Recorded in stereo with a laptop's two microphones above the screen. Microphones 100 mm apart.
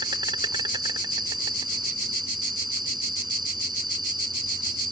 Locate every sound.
0.0 s an insect: 45° right (ahead or behind)